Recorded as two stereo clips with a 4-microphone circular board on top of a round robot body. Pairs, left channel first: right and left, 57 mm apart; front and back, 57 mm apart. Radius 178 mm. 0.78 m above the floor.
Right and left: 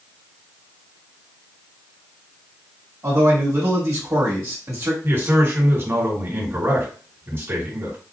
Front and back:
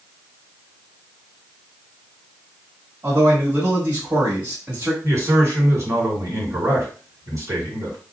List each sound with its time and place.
3.0 s a man speaking: 125° left, 1.9 m
5.0 s a man speaking: 140° left, 1.9 m